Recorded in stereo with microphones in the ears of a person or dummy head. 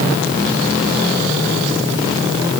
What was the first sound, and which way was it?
Only background noise.